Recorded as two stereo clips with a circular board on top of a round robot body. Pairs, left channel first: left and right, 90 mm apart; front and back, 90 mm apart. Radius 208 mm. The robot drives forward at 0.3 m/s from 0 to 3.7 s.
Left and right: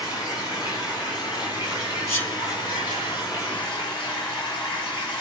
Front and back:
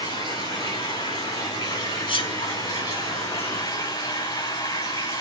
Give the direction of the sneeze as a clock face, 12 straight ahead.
11 o'clock.